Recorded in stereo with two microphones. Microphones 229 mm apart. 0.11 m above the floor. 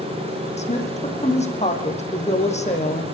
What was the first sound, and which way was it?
A woman speaking, 30° left (ahead or behind).